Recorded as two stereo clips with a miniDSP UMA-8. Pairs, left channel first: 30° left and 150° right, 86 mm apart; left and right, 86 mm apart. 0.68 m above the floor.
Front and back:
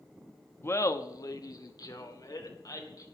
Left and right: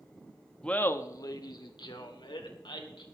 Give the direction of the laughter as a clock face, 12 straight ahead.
11 o'clock.